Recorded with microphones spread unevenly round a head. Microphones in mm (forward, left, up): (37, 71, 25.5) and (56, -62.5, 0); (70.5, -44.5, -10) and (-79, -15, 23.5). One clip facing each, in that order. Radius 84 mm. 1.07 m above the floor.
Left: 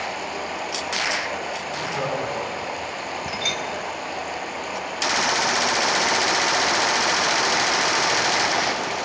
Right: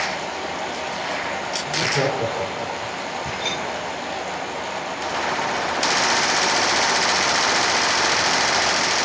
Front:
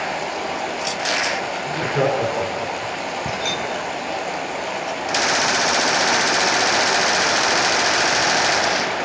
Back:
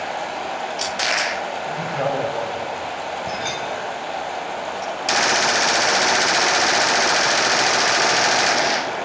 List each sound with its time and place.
0.0 s running water: 15° left, 8 m
1.6 s laughter: 40° right, 3.5 m
3.3 s a clink: 55° left, 4.5 m